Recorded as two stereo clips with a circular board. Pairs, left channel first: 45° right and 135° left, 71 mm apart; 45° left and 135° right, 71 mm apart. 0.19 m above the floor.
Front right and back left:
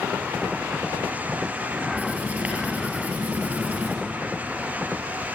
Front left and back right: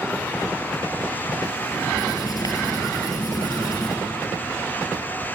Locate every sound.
1.9 s writing: 65° left, 4 m